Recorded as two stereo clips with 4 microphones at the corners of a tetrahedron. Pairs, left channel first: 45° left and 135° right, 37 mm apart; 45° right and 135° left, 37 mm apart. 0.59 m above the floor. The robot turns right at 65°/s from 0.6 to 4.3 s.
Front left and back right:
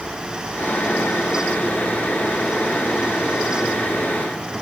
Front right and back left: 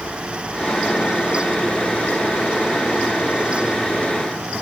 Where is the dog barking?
No dog barking in this recording.